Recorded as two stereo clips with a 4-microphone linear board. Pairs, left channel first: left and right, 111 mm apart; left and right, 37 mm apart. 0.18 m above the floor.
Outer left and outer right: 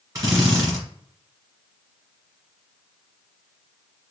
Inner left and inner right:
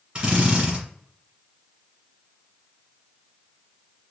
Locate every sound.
0.1 s a drill: 35° right (ahead or behind), 1.9 m